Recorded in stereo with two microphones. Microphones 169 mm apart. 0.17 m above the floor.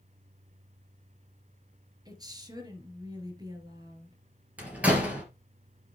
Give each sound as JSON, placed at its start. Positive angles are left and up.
{"t": 2.0, "sound": "a woman speaking", "side_deg": -20, "distance_m": 3.5}
{"t": 4.6, "sound": "a door slam", "side_deg": -10, "distance_m": 3.0}